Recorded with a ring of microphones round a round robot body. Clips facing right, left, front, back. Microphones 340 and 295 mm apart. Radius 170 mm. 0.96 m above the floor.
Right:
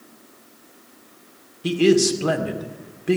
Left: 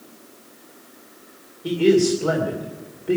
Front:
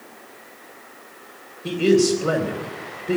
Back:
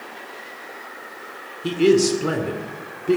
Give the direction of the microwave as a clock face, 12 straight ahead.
No microwave in this recording.